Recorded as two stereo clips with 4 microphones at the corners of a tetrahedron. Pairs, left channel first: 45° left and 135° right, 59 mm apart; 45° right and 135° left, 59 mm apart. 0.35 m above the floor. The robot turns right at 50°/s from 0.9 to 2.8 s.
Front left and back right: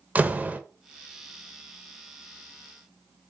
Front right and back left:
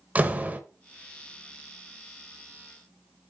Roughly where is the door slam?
Behind.